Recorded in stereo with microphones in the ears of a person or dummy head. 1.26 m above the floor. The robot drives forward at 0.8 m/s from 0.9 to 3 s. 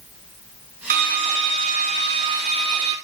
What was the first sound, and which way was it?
A drill, 45° right (ahead or behind).